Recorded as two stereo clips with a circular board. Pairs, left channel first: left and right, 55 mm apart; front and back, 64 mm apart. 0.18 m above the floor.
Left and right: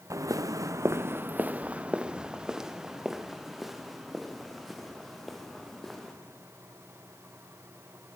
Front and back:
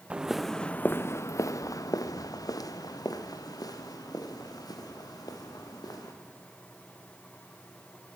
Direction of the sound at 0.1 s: 110° right.